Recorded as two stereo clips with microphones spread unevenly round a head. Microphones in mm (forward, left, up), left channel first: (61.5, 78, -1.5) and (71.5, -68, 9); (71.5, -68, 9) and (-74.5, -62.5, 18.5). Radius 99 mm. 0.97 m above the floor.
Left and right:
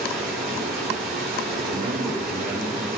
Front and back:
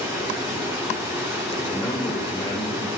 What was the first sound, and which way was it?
Running water, 110° right.